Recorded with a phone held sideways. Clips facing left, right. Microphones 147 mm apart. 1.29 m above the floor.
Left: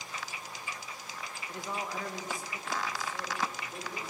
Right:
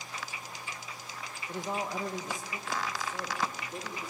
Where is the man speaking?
25° right (ahead or behind), 1.3 m; by 4.1 s 20° right (ahead or behind), 3.5 m.